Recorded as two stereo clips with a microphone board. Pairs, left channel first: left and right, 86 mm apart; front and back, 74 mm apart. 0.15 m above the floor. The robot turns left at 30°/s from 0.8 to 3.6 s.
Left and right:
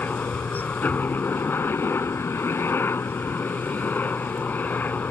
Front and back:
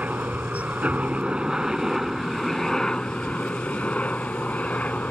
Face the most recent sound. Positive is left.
turn(degrees=50)